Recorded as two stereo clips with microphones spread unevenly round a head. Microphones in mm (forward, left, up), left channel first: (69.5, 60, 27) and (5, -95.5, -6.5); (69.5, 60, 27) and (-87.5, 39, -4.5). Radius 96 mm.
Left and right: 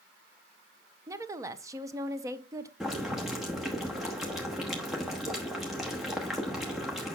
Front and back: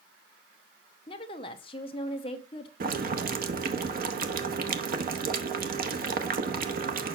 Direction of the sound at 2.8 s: 155° left.